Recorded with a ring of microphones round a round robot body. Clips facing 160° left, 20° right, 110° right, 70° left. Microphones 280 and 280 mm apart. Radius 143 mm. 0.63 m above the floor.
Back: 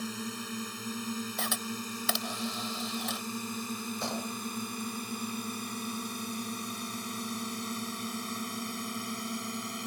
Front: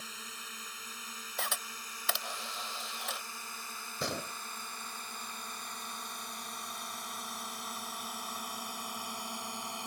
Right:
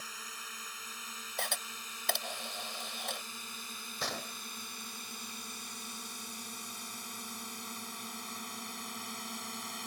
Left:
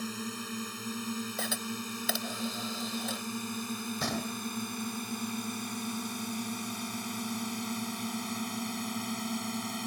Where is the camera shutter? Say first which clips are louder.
Back 10 dB, left 9 dB; 150° left.